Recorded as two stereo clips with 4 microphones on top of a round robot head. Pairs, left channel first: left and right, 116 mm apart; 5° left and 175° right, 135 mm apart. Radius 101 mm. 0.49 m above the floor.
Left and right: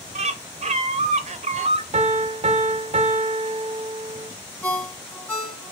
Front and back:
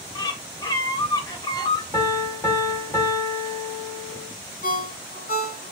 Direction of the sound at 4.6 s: 15° left.